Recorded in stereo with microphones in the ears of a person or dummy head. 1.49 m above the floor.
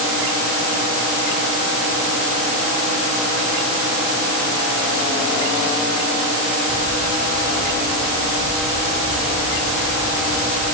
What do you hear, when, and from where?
Only background noise.